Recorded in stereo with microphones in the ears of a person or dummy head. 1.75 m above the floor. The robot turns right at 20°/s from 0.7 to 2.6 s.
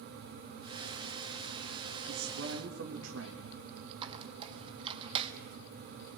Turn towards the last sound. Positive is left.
turn(degrees=-30)  # may be behind; listen again after turning